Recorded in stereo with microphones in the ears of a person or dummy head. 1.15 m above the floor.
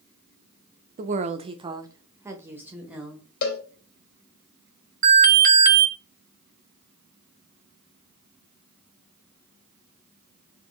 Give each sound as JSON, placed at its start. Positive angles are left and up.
{"t": 1.0, "sound": "a woman speaking", "side_deg": -40, "distance_m": 0.7}
{"t": 3.4, "sound": "a cowbell", "side_deg": 55, "distance_m": 1.6}
{"t": 5.0, "sound": "an alarm", "side_deg": -40, "distance_m": 1.3}